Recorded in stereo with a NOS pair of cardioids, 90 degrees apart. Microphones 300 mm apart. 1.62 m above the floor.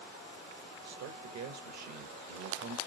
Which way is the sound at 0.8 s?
65° right.